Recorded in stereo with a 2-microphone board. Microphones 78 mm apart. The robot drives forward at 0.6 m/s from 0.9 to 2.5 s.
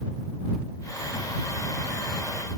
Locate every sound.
Only background noise.